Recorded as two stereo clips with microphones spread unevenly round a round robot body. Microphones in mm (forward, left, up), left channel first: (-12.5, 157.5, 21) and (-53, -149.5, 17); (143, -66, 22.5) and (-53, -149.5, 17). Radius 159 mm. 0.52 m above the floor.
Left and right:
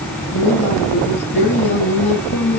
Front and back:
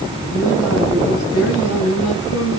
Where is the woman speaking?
25° left, 6.5 m.